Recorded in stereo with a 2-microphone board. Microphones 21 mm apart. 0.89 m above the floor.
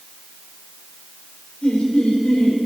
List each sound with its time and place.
1.6 s laughter: 75° left (ahead or behind), 3.5 m